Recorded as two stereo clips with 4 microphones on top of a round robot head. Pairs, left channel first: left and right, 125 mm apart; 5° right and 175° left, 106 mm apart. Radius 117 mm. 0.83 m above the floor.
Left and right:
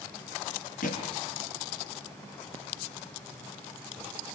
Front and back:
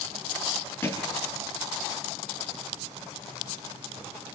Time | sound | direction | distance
0.8 | a thud | 65° left | 5 m